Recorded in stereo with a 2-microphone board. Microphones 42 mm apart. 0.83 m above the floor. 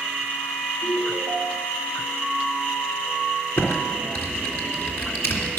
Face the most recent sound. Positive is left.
turn(degrees=70)  # may be behind; listen again after turning